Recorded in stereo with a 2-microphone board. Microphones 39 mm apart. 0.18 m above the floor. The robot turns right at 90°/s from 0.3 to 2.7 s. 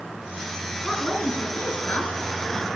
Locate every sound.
0.8 s a woman speaking: 5° left, 3 m; by 2.7 s 170° left, 3 m